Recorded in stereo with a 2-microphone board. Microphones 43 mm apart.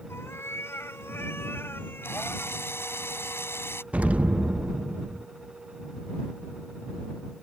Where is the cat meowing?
85° left; by 2.6 s 50° left (ahead or behind).